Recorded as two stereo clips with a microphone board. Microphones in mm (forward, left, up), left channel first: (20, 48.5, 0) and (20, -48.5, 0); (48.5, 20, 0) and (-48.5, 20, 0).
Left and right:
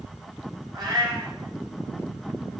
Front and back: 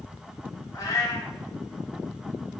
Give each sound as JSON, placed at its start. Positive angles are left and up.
{"t": 0.7, "sound": "a cat meowing", "azimuth_deg": -50, "distance_m": 1.2}